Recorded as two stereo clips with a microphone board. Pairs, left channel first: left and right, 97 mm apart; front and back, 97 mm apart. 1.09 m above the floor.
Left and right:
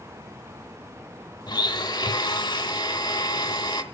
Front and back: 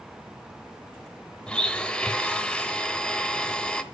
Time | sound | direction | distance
1.5 | a blender | 75° left | 1.2 m